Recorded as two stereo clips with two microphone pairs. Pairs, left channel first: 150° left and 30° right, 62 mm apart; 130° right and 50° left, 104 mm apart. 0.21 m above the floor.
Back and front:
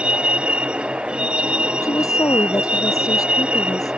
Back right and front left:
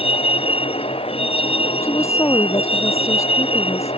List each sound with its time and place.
0.0 s a vehicle: 105° right
1.8 s a woman speaking: 170° left